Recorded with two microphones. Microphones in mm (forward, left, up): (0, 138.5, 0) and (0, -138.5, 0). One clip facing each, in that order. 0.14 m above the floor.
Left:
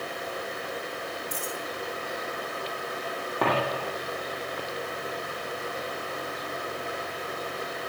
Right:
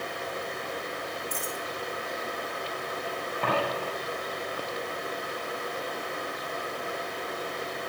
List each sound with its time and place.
1.3 s a dropped coin: 70° left (ahead or behind), 4.5 m
3.4 s a dropped coin: 75° left (ahead or behind), 4 m